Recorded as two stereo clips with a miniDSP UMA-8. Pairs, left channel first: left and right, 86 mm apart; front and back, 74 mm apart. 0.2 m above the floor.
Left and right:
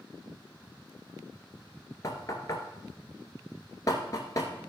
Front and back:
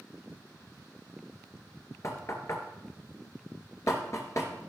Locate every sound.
2.0 s knocking: 45° left, 1.9 m